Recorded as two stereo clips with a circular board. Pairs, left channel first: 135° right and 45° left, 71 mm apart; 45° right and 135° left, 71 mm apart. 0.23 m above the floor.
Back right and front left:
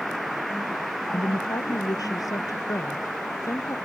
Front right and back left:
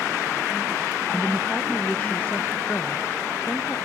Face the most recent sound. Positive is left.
turn(degrees=-95)